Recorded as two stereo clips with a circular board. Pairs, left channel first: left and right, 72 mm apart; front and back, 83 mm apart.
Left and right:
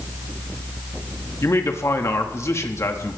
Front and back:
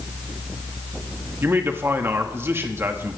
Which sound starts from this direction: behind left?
A man speaking, at 1.4 s.